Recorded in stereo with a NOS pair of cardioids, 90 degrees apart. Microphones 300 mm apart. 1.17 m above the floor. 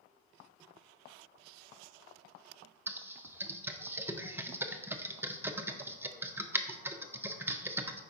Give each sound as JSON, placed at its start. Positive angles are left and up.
{"t": 2.9, "sound": "typing on a keyboard", "azimuth_deg": -10, "distance_m": 0.6}